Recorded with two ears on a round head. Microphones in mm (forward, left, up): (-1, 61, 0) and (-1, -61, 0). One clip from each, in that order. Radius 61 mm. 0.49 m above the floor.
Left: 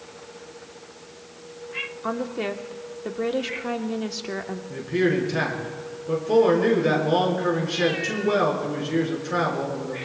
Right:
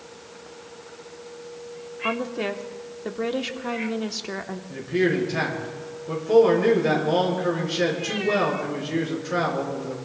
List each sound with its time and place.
2.0 s a woman speaking: 10° right (ahead or behind), 0.9 m
4.7 s a man speaking: 10° left (ahead or behind), 5 m